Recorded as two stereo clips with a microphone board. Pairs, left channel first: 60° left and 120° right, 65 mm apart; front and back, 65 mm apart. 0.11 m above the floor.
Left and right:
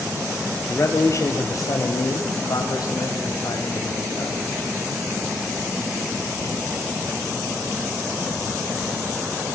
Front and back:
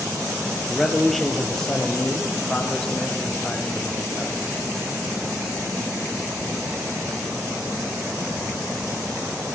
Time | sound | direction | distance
0.7 | a man speaking | 90° left | 2 m